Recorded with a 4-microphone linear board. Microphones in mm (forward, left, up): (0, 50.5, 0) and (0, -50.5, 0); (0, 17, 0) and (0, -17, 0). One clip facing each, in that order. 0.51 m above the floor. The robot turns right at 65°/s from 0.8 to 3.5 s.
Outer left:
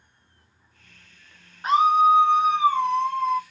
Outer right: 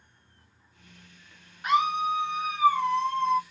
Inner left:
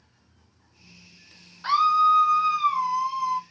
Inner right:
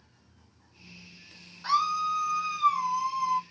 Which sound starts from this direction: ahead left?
A scream, at 1.6 s.